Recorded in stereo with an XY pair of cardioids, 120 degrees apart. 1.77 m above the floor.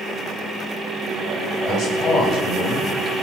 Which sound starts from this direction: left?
A man speaking, at 1.7 s.